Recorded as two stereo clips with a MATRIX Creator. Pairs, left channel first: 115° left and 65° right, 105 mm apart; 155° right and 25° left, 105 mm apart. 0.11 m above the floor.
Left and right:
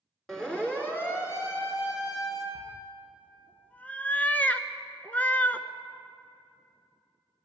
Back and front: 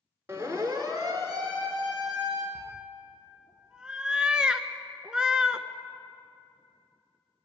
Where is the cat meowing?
85° left, 0.6 m.